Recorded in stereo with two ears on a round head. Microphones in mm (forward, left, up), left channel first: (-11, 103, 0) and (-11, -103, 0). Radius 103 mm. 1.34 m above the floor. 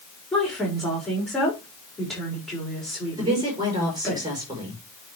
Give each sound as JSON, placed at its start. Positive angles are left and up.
{"t": 0.3, "sound": "a woman speaking", "side_deg": 0, "distance_m": 5.0}
{"t": 3.2, "sound": "a woman speaking", "side_deg": -20, "distance_m": 6.0}